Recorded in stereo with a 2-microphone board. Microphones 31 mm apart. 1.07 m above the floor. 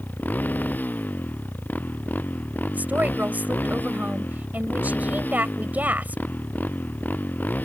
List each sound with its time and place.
0.0 s a motorcycle: 85° left
2.7 s a woman speaking: 70° right (ahead or behind)